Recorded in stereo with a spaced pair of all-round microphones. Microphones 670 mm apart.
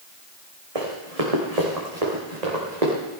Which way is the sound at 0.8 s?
55° right (ahead or behind).